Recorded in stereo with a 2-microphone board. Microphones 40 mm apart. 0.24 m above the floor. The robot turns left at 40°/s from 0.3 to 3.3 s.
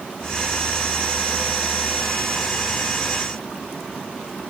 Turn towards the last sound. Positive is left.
No sound to turn to.